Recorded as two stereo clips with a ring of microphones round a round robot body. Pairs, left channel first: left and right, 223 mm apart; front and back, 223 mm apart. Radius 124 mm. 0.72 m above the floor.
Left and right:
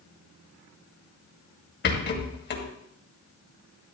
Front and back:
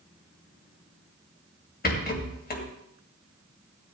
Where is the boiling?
I don't hear boiling.